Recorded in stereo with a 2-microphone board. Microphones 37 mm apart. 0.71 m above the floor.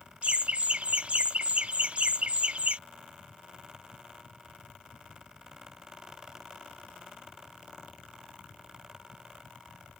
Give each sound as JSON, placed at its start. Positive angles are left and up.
{"t": 0.2, "sound": "laughter", "side_deg": -35}